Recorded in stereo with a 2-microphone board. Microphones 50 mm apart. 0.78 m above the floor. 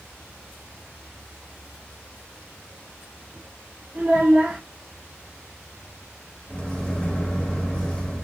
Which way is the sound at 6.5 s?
15° left (ahead or behind).